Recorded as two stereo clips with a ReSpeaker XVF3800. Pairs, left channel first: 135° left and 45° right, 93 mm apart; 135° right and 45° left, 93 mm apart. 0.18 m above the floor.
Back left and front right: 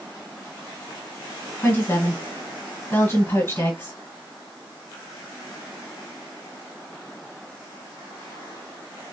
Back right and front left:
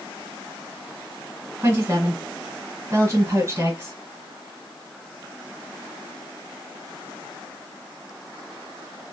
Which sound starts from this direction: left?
A woman speaking, at 1.6 s.